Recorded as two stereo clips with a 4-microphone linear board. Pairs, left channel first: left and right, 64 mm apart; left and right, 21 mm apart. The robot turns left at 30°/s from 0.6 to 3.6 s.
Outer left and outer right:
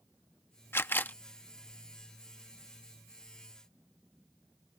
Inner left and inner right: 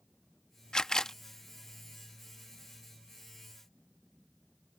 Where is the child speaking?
No child speaking in this recording.